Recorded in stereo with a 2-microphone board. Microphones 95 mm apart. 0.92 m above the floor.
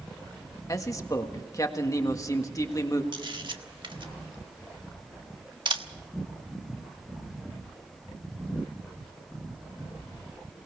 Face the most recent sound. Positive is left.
turn(degrees=-55)  # may be behind; listen again after turning